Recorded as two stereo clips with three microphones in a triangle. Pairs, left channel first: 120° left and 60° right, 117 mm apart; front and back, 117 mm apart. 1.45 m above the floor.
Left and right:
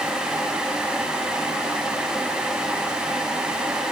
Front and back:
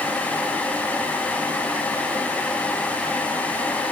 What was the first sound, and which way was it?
Only background noise.